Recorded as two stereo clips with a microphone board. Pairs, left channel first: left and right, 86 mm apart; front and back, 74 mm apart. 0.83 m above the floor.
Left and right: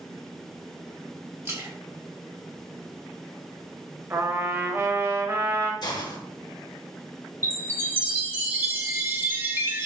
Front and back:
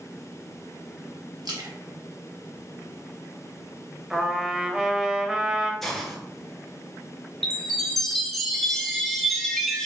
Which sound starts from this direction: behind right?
A splash, at 1.4 s.